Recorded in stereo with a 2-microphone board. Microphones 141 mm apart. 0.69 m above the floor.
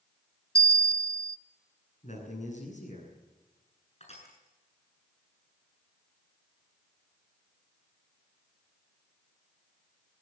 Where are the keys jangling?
No keys jangling in this recording.